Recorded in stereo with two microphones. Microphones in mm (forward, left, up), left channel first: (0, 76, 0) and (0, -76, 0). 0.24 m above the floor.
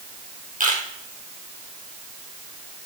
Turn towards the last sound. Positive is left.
turn(degrees=-65)  # may be behind; listen again after turning